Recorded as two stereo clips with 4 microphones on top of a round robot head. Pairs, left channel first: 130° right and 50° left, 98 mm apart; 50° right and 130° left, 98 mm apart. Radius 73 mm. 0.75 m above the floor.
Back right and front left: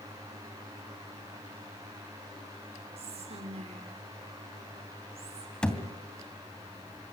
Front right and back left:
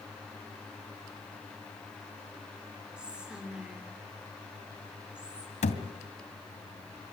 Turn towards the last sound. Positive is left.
turn(degrees=-45)